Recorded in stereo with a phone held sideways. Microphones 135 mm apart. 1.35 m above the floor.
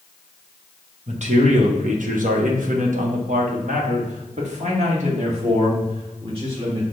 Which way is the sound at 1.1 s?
55° right (ahead or behind).